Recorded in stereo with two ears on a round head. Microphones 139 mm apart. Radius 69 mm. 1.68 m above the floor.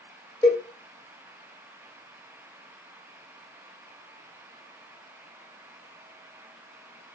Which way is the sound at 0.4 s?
25° left (ahead or behind).